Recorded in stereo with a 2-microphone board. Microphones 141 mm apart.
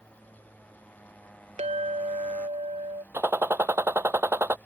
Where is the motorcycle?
10° left (ahead or behind).